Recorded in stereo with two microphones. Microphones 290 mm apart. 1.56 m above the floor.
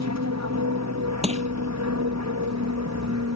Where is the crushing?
20° right (ahead or behind).